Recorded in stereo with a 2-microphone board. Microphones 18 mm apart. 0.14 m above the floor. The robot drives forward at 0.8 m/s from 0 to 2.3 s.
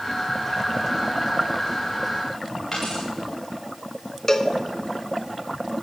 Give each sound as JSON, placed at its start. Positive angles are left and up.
{"t": 2.7, "sound": "a dropped coin", "side_deg": 20, "distance_m": 6.5}
{"t": 4.3, "sound": "a cowbell", "side_deg": 25, "distance_m": 1.0}